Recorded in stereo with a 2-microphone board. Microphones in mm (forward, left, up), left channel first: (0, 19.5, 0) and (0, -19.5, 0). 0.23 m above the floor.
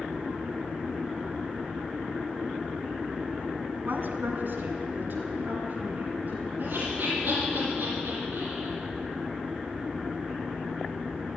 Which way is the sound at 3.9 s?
50° right (ahead or behind).